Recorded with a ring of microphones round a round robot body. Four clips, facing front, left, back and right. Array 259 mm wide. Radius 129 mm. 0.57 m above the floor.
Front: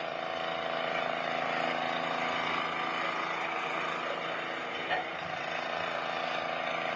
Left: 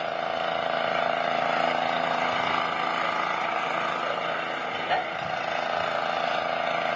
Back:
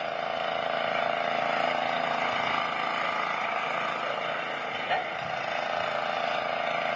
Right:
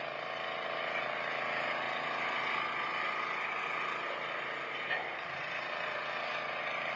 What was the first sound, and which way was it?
An engine running, 115° left.